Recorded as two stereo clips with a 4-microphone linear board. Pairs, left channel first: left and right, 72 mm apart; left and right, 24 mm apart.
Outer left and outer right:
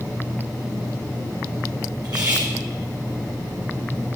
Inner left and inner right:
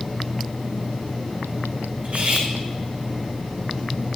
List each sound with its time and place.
2.0 s cutlery clinking: 75° right (ahead or behind), 4.5 m